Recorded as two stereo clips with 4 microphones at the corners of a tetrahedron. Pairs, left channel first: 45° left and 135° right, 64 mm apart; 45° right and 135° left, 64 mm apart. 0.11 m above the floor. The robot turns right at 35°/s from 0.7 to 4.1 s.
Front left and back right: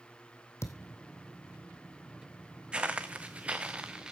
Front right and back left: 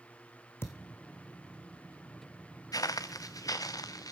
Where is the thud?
5° left, 1.6 m; by 1.0 s 15° left, 1.6 m.